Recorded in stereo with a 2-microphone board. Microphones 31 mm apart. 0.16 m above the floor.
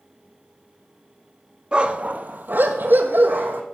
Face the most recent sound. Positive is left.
turn(degrees=-70)  # may be behind; listen again after turning